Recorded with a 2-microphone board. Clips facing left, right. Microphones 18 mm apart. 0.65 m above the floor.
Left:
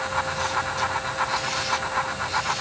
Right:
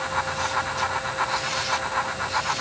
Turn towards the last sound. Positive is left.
No sound to turn to.